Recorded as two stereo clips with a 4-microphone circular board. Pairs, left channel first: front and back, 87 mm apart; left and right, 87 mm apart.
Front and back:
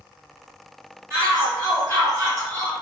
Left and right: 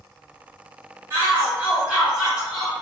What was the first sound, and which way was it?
A shout, 135° right.